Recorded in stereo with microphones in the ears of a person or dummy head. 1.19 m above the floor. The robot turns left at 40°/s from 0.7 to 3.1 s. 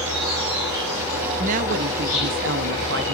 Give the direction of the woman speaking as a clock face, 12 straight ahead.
2 o'clock.